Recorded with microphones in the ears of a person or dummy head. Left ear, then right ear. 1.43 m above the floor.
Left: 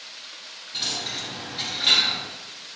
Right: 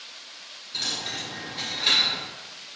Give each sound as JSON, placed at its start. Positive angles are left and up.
{"t": 0.7, "sound": "a dropped coin", "side_deg": -20, "distance_m": 1.7}